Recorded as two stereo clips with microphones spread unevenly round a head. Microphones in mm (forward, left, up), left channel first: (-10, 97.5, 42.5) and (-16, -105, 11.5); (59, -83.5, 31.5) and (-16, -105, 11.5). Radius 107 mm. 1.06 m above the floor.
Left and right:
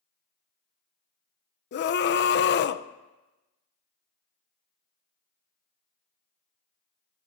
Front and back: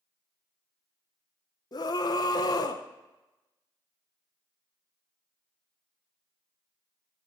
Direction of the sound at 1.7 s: 60° left.